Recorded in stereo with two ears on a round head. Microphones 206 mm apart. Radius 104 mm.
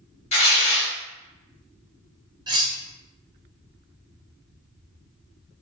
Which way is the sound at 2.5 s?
20° right (ahead or behind).